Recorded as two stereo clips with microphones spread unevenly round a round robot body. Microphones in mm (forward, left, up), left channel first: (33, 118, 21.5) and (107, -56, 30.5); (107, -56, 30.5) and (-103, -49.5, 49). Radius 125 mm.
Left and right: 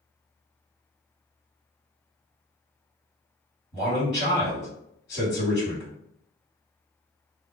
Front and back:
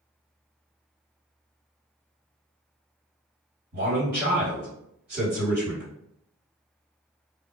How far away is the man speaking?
About 1.8 m.